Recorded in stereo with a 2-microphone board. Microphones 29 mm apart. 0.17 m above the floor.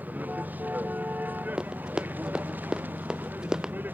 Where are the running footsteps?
25° right (ahead or behind); by 3.8 s 20° right (ahead or behind).